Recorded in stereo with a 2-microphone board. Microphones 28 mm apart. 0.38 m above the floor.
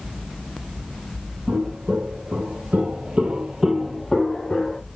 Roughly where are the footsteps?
Right.